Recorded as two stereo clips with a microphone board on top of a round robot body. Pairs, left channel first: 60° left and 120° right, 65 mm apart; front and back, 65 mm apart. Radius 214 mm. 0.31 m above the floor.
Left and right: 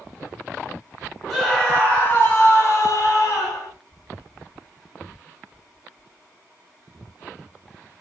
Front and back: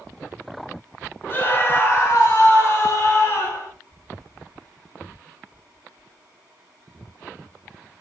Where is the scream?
30° right, 1.0 m; by 3.7 s 45° left, 1.6 m.